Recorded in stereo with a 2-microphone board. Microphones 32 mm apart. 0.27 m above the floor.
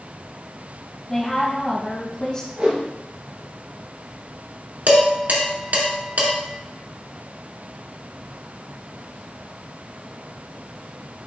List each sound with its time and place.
1.1 s a woman speaking: 15° left (ahead or behind), 2 m; by 2.5 s 30° left (ahead or behind), 2.5 m
2.6 s a whoosh: 50° right (ahead or behind), 3 m
4.9 s dishes clattering: 75° right (ahead or behind), 2 m